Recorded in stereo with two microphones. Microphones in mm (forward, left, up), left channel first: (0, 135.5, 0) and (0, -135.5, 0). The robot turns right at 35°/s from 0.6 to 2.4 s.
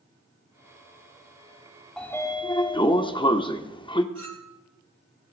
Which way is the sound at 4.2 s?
65° right (ahead or behind).